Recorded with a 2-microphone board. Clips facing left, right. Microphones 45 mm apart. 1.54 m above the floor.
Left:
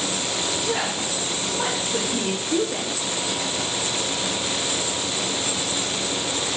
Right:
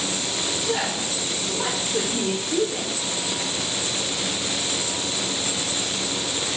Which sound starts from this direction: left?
A woman speaking, at 0.6 s.